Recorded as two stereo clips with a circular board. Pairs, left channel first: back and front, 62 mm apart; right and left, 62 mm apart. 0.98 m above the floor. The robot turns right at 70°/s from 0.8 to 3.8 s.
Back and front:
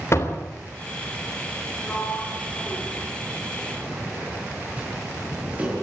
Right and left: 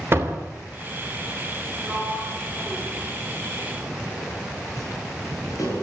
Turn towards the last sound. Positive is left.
turn(degrees=-65)